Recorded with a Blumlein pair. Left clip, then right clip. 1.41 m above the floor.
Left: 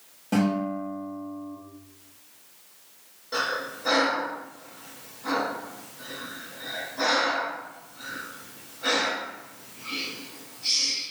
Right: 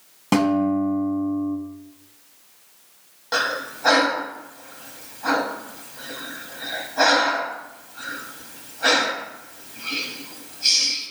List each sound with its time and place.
0.3 s a guitar: 50° right, 1.0 m
3.3 s breathing: 55° right, 0.9 m